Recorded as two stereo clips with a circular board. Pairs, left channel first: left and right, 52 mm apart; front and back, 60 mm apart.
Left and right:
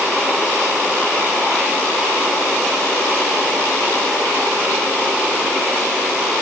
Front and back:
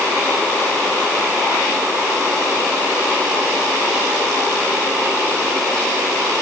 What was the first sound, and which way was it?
Only background noise.